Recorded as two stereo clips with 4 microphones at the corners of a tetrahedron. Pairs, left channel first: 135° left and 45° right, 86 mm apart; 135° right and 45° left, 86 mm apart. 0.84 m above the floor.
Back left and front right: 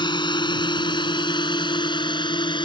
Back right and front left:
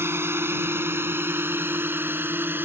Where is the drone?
105° left; by 2.7 s 110° left.